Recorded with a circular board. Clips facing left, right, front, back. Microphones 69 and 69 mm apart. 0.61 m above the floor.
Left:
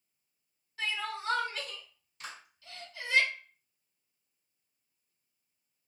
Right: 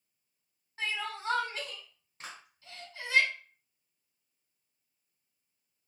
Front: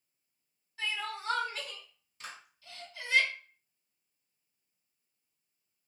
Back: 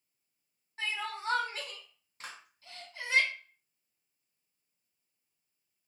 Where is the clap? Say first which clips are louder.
Left 1 dB, even; 135° right, 1.7 m.